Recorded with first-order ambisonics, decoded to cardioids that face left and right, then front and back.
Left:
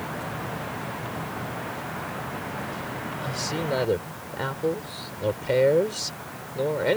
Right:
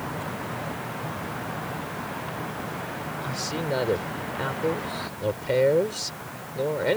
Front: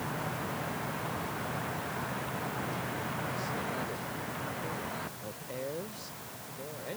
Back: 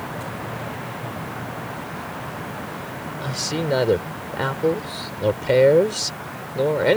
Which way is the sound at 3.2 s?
175° left.